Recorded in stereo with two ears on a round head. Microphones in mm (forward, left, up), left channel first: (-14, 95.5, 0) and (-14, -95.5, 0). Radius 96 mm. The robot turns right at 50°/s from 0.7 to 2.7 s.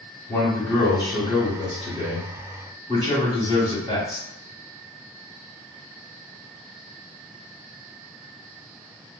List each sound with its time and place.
0.3 s a man speaking: 10° left (ahead or behind), 1.3 m; by 4.3 s 15° left (ahead or behind), 1.3 m